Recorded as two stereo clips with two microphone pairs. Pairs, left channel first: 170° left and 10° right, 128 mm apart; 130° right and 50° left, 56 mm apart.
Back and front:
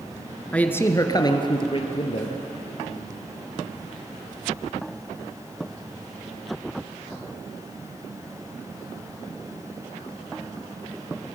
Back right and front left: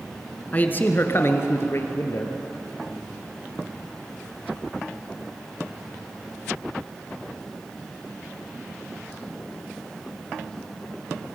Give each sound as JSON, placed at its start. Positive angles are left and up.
{"t": 0.5, "sound": "a man speaking", "azimuth_deg": -120, "distance_m": 1.5}